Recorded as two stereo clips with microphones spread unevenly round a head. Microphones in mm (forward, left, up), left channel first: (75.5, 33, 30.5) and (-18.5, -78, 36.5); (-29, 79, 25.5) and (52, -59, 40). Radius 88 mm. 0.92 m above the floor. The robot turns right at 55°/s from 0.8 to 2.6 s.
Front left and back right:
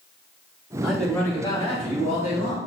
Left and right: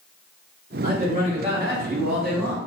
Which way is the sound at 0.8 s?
40° right.